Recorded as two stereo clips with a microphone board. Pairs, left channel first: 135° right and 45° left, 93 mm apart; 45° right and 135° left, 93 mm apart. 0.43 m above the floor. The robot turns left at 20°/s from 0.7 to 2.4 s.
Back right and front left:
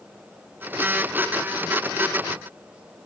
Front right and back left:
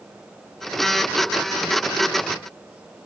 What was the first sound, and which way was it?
Only background noise.